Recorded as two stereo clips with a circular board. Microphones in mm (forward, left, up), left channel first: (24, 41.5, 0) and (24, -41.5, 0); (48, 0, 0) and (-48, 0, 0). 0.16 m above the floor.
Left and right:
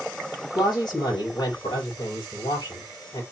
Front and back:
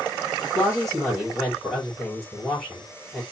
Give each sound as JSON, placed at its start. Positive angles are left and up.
{"t": 0.6, "sound": "a woman speaking", "azimuth_deg": 90, "distance_m": 4.0}